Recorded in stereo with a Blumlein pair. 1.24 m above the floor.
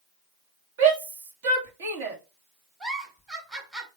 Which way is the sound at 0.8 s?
55° right.